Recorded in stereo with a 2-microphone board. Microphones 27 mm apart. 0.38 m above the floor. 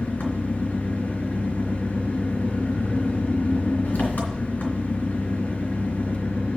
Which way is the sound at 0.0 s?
80° left.